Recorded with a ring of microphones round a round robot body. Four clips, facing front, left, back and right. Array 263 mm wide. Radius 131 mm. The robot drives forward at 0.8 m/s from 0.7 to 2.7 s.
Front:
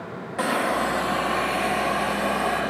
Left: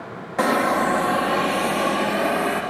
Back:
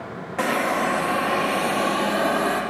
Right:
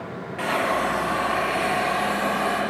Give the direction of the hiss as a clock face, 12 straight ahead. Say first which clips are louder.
Left 4 dB, back 1 dB; 9 o'clock.